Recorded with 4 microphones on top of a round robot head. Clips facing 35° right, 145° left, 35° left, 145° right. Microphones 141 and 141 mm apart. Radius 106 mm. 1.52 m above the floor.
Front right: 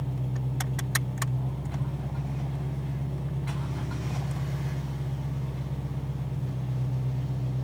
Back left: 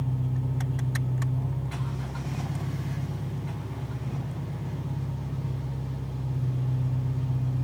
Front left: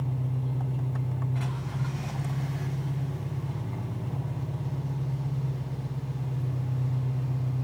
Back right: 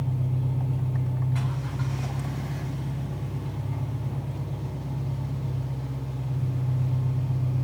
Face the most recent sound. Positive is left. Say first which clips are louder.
# back left 2 dB, back right 3 dB
turn(degrees=-75)